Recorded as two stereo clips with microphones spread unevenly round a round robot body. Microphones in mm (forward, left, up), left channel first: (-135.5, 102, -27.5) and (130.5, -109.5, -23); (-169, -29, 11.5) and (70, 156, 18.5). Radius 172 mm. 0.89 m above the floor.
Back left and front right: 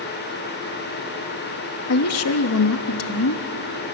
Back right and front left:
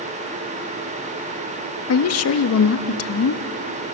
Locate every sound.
1.9 s a woman speaking: 175° right, 1.0 m